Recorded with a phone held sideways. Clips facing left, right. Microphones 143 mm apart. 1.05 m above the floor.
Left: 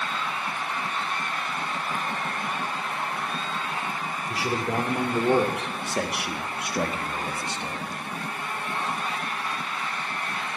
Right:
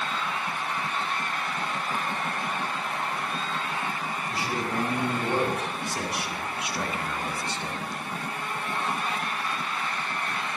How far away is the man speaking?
About 4 m.